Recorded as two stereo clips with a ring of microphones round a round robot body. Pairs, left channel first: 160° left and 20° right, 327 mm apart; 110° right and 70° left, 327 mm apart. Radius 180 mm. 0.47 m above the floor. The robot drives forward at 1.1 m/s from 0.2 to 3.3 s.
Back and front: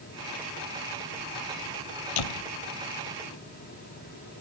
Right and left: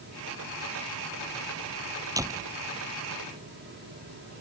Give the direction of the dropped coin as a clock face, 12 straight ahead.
I don't hear a dropped coin.